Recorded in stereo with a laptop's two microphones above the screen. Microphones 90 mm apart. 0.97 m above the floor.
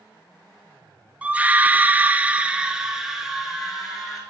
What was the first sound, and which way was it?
A scream, 15° right (ahead or behind).